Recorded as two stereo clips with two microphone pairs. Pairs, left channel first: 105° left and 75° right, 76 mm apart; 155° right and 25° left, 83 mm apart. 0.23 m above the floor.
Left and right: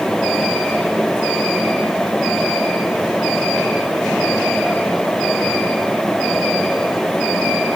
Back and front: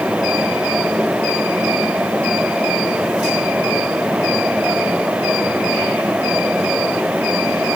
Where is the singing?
No singing in this recording.